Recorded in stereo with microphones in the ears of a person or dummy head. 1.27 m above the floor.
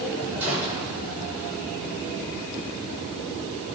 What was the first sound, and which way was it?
A gunshot, 10° right (ahead or behind).